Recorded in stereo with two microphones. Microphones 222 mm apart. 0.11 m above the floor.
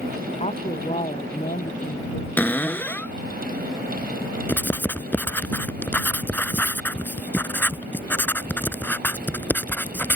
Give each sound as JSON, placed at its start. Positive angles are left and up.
{"t": 0.4, "sound": "a woman speaking", "side_deg": 30}
{"t": 2.4, "sound": "a cupboard door", "side_deg": 10}
{"t": 4.5, "sound": "writing", "side_deg": 10}